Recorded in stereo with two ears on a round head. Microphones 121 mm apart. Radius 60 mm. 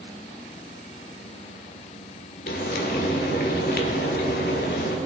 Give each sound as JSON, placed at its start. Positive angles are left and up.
{"t": 2.5, "sound": "frying", "side_deg": 70, "distance_m": 1.7}